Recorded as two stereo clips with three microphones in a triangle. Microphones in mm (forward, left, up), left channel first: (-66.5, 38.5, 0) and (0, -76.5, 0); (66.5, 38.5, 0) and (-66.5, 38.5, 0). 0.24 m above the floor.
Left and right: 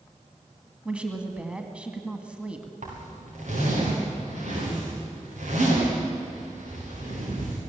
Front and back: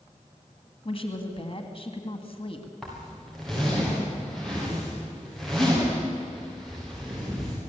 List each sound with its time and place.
0.8 s a woman speaking: 20° left, 2 m
2.8 s a zipper: 90° right, 8 m